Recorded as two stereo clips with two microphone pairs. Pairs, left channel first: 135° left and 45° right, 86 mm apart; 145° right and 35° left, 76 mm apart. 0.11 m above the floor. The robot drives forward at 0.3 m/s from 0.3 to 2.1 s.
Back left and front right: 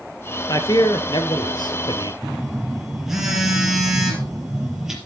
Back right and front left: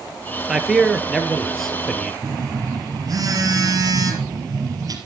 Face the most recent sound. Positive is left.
turn(degrees=40)